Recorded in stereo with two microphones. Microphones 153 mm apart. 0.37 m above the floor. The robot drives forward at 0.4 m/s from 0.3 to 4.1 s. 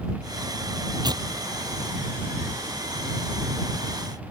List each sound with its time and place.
1.0 s tearing paper: 25° right (ahead or behind); by 2.9 s 30° right (ahead or behind)